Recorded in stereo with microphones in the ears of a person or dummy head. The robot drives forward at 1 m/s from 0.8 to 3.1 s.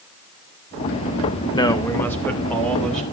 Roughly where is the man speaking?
Left.